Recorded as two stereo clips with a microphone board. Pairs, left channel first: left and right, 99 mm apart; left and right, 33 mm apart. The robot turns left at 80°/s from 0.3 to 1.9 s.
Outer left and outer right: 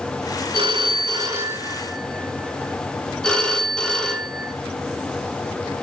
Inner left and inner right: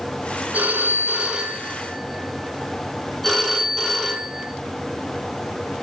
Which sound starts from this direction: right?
A phone ringing, at 0.5 s.